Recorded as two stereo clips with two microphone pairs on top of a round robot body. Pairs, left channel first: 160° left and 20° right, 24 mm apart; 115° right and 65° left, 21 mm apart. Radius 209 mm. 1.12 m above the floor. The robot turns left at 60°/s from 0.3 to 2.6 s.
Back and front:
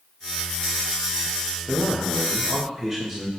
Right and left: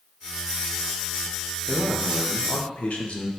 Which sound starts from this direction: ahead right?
A man speaking, at 1.7 s.